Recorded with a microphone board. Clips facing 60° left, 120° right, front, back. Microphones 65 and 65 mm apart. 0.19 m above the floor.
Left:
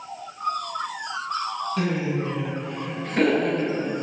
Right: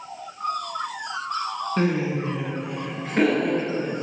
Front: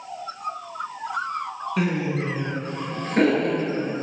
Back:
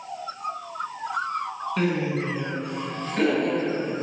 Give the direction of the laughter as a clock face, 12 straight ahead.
3 o'clock.